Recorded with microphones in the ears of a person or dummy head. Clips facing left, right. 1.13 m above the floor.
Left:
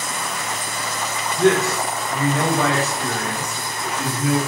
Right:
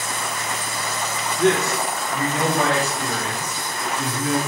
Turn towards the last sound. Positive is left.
turn(degrees=-15)  # may be behind; listen again after turning